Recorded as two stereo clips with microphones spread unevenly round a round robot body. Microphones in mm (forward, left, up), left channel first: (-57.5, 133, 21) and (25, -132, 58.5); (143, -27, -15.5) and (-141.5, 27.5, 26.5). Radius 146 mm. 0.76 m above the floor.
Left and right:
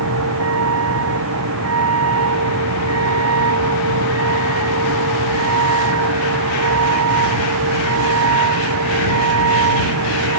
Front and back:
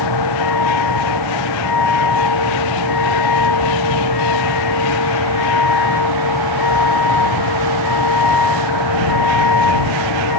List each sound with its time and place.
0.0 s a vehicle: 30° right